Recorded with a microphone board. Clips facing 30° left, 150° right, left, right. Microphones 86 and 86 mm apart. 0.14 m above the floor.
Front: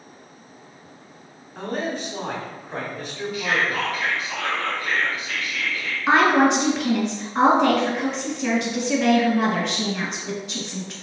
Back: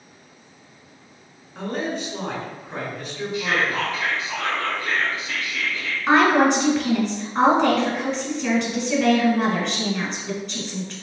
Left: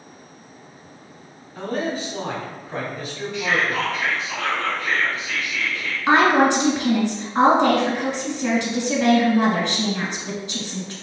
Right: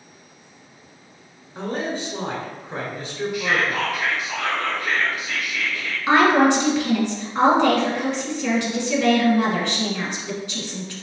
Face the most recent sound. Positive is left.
turn(degrees=110)